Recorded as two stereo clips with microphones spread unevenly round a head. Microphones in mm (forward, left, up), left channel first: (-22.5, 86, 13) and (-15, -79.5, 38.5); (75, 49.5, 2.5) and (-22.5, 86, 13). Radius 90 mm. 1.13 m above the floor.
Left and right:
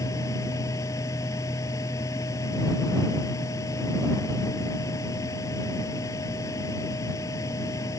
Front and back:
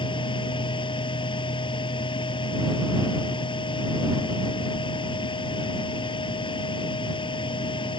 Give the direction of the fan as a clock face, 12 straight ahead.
11 o'clock.